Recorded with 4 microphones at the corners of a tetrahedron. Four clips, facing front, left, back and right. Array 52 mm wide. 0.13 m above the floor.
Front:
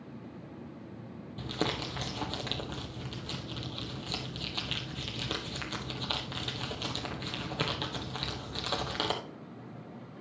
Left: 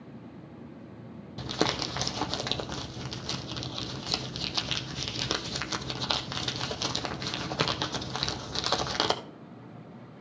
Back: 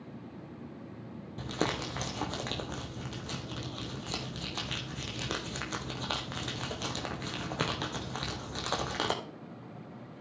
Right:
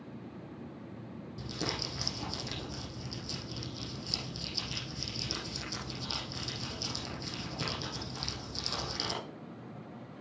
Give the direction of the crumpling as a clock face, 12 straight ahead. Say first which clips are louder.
Left 9 dB, back 1 dB; 9 o'clock.